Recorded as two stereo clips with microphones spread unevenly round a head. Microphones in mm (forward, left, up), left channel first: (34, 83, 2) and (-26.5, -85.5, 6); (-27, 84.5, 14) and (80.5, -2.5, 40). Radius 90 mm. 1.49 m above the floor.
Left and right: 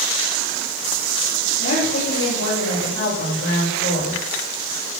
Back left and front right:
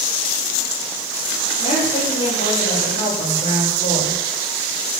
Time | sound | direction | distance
1.6 | a woman speaking | 90° left | 7 m